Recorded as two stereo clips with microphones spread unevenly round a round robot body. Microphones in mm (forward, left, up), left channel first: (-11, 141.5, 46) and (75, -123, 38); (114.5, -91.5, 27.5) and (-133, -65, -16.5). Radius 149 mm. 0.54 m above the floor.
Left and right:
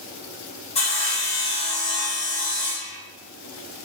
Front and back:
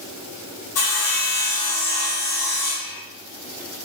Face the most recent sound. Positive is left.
turn(degrees=40)